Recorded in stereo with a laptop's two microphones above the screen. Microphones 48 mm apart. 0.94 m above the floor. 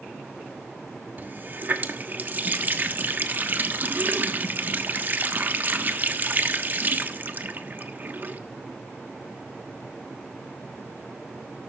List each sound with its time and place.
1.2 s a running tap: 40° right (ahead or behind), 1.2 m